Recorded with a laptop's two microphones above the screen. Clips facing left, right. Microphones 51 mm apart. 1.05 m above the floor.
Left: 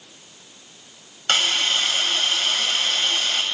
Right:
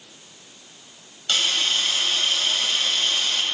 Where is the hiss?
55° left (ahead or behind), 2.5 m.